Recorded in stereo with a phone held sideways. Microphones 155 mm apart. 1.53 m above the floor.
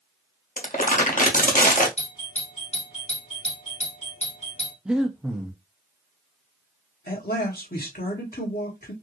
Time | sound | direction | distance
0.6 | crumpling | 55° left (ahead or behind) | 1.0 m
2.0 | a doorbell | 45° left (ahead or behind) | 1.0 m
4.8 | breathing | 5° right (ahead or behind) | 0.6 m
7.1 | a man speaking | 70° left (ahead or behind) | 1.5 m